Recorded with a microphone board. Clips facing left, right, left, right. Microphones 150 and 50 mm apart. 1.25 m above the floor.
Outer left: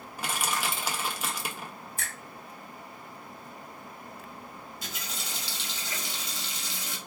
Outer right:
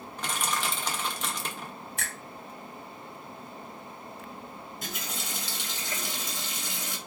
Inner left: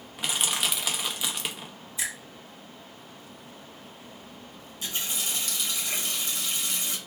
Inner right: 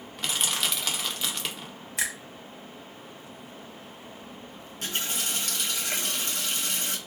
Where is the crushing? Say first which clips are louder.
Even, even; 10° left (ahead or behind), 0.6 m.